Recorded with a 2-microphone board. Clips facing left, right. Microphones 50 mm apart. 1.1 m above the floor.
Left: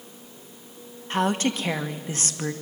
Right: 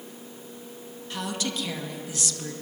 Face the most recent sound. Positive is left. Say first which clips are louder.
# left 8 dB
turn(degrees=40)  # may be behind; listen again after turning